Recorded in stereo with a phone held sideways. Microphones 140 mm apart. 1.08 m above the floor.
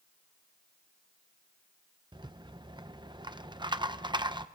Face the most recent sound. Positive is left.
turn(degrees=-30)  # may be behind; listen again after turning